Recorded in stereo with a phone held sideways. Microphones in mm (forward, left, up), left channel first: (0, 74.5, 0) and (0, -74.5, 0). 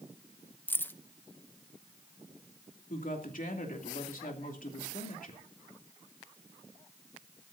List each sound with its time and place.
0.7 s keys jangling: 15° left (ahead or behind), 0.5 m
2.9 s a woman speaking: 75° left (ahead or behind), 2.5 m